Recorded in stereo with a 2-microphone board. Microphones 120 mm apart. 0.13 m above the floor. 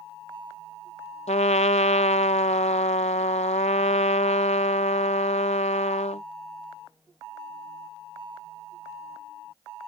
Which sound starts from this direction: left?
A trumpet, at 1.3 s.